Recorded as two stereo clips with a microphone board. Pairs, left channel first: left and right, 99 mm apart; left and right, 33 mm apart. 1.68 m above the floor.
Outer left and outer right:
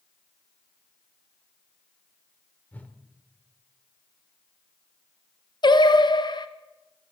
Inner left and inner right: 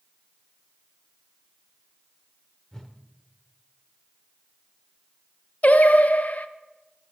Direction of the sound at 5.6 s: 50° left (ahead or behind).